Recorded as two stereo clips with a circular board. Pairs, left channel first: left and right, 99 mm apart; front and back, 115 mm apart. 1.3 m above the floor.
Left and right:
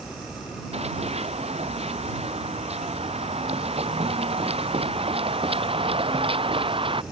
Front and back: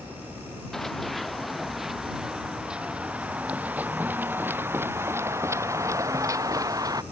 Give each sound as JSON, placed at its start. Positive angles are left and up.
{"t": 0.7, "sound": "running footsteps", "azimuth_deg": -85}